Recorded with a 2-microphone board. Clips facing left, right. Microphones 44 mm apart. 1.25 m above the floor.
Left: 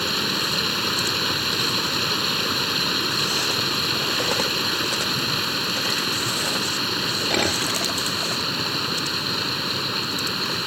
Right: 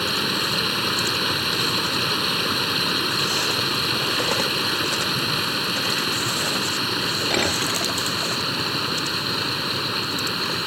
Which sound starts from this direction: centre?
Running water, at 0.0 s.